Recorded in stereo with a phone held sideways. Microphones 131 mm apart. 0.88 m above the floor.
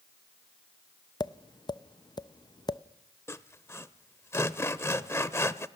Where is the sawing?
20° left (ahead or behind), 0.7 m.